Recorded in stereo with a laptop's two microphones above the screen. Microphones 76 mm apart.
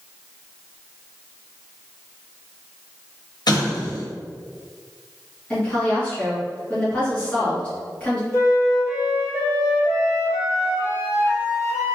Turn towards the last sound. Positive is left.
turn(degrees=45)  # may be behind; listen again after turning